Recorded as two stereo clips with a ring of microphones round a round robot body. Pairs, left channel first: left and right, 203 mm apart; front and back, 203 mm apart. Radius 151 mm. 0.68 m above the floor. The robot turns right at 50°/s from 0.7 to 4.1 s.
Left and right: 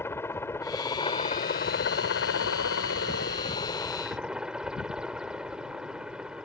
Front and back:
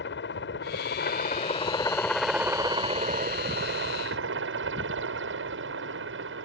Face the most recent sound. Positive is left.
turn(degrees=-175)